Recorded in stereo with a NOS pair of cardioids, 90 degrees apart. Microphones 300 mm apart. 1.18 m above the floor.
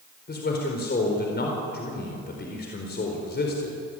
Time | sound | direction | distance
0.3 | a man speaking | 35° left | 4.5 m